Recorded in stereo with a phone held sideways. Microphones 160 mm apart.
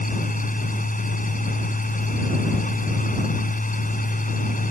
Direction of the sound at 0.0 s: 55° left (ahead or behind).